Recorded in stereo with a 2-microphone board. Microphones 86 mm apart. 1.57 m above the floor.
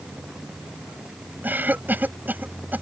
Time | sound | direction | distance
1.4 | a cough | 20° right (ahead or behind) | ?